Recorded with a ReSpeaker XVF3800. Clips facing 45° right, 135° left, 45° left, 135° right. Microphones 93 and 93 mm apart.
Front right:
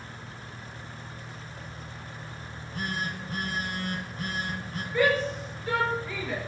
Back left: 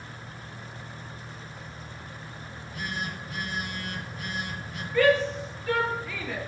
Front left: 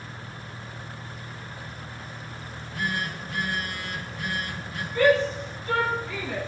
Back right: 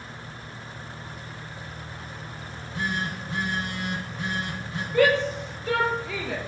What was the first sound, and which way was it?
A phone buzzing, 80° right.